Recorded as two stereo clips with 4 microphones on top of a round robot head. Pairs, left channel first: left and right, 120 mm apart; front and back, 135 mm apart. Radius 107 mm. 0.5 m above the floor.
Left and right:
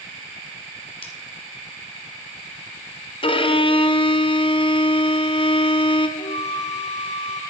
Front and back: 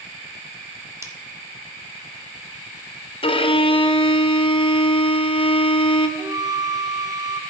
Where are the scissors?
115° left, 1.9 m.